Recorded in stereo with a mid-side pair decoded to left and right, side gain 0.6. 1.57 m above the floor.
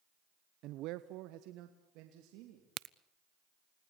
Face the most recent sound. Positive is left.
turn(degrees=-55)